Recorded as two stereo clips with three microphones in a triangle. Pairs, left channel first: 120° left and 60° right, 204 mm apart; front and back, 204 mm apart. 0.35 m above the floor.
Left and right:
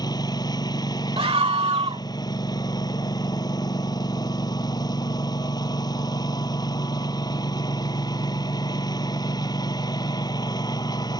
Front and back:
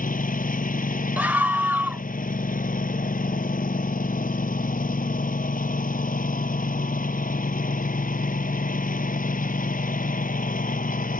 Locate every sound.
0.0 s a lawn mower: 50° left
1.2 s a scream: 105° right